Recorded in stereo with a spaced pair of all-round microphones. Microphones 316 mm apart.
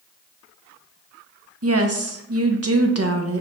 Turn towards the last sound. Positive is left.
turn(degrees=-50)  # may be behind; listen again after turning